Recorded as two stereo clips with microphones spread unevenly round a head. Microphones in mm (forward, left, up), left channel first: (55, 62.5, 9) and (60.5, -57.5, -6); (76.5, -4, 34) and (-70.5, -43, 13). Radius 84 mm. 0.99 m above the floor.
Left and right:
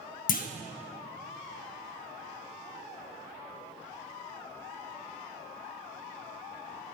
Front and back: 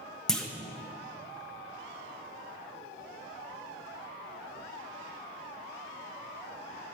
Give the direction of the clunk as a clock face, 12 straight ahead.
9 o'clock.